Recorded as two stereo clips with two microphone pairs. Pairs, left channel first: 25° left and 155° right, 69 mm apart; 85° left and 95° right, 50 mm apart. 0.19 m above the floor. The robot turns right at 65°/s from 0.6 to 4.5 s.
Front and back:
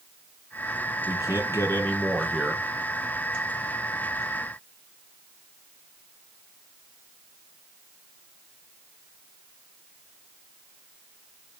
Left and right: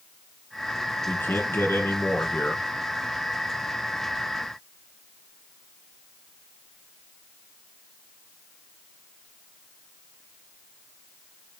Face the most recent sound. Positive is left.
turn(degrees=-95)